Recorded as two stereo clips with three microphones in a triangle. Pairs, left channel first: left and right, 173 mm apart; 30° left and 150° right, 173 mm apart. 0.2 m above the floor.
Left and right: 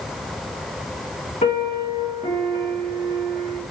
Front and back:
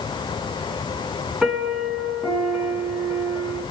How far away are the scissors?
I don't hear scissors.